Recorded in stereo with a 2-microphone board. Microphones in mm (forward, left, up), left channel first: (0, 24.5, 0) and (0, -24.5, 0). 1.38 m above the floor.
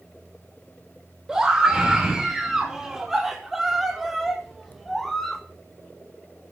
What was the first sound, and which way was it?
A scream, 15° right (ahead or behind).